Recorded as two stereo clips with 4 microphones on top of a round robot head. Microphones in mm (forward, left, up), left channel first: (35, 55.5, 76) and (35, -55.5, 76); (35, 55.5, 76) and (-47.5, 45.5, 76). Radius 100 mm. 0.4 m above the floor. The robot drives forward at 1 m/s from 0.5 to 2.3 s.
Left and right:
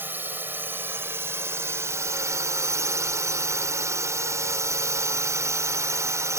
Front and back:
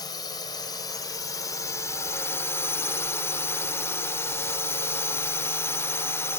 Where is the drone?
20° right; by 6.4 s 35° right.